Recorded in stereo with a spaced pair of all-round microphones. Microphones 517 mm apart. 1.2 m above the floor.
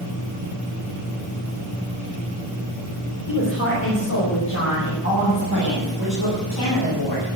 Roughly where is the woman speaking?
Left.